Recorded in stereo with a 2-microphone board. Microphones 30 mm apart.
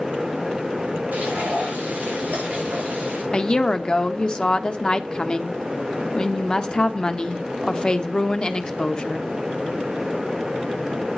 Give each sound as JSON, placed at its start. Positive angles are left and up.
{"t": 1.1, "sound": "frying", "side_deg": -70, "distance_m": 7.0}
{"t": 3.3, "sound": "a woman speaking", "side_deg": 30, "distance_m": 0.8}